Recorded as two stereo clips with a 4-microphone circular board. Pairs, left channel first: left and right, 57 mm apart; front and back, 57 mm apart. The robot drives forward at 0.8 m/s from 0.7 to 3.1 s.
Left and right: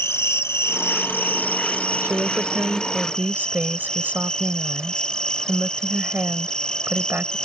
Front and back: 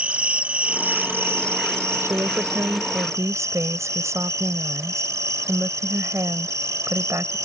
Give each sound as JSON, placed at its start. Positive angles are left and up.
{"t": 0.0, "sound": "an insect", "azimuth_deg": 115}
{"t": 2.0, "sound": "a woman speaking", "azimuth_deg": -140}